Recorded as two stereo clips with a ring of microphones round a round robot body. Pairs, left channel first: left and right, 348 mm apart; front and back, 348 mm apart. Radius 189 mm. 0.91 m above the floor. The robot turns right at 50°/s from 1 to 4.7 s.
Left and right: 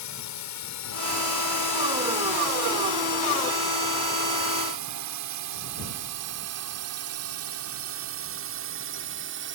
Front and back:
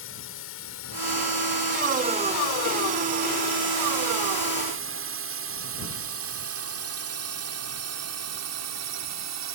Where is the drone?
55° left; by 9.6 s 145° right.